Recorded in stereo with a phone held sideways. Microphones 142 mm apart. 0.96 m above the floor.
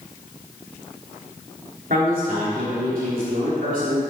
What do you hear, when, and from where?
1.9 s a man speaking: 70° right (ahead or behind), 3 m